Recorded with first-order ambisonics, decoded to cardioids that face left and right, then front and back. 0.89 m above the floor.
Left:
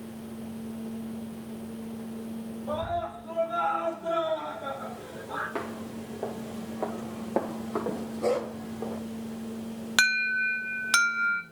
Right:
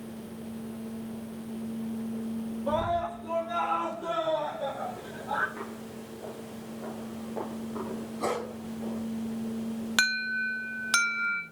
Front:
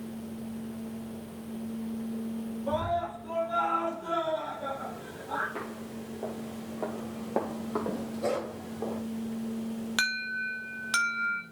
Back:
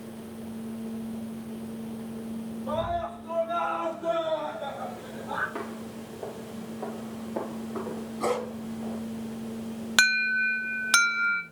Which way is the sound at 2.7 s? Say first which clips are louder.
Right 3 dB, even; 85° right.